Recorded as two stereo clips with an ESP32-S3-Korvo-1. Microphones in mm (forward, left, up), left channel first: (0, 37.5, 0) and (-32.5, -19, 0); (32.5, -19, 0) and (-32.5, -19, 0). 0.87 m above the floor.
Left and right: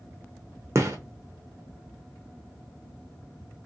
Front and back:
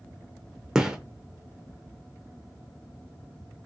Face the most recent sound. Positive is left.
turn(degrees=-105)